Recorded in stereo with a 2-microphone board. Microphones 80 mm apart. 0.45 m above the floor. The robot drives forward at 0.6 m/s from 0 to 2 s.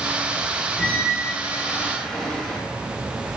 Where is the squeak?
15° left (ahead or behind), 0.9 m; by 2.6 s 10° left (ahead or behind), 1.5 m.